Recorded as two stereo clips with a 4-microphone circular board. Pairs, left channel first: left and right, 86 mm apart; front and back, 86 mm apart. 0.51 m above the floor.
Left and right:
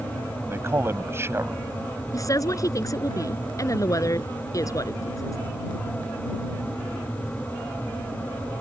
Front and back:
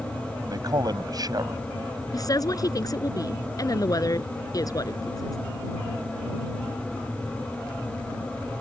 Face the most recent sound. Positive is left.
turn(degrees=40)